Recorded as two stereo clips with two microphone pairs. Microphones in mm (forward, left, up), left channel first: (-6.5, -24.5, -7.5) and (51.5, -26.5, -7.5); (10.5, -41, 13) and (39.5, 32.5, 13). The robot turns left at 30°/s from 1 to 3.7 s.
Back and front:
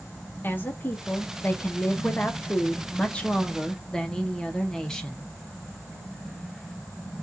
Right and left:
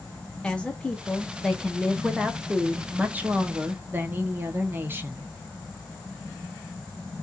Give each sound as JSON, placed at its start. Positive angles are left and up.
{"t": 0.4, "sound": "a woman speaking", "azimuth_deg": 180, "distance_m": 0.6}